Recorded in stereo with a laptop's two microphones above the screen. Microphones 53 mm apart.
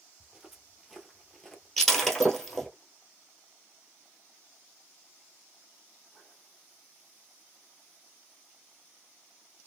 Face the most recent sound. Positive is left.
turn(degrees=5)  # may be behind; listen again after turning